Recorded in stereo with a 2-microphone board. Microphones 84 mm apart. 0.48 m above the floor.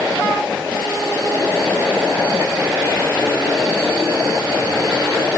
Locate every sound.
Only background noise.